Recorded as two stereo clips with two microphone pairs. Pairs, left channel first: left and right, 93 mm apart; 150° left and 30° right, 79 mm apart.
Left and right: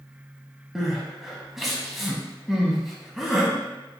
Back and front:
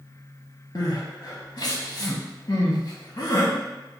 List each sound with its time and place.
0.8 s crying: straight behind, 0.5 m